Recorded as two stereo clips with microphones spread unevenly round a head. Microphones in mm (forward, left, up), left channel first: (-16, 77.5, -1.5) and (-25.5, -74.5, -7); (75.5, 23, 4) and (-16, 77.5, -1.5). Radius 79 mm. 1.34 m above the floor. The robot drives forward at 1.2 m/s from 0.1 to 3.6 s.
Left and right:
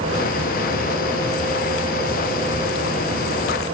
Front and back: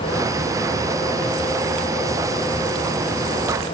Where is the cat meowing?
I don't hear a cat meowing.